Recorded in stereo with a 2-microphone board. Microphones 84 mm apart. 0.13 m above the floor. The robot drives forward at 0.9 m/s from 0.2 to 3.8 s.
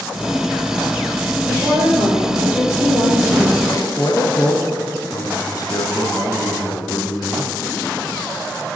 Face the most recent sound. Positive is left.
turn(degrees=45)  # may be behind; listen again after turning